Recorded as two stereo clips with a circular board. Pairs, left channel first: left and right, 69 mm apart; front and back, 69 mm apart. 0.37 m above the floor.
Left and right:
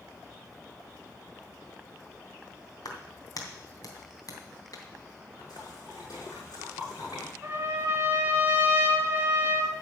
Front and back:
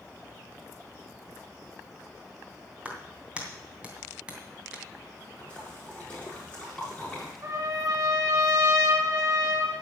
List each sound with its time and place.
2.9 s a clap: 105° left, 2.5 m
5.4 s a splash: 75° left, 6 m
7.4 s a trumpet: 155° right, 2.5 m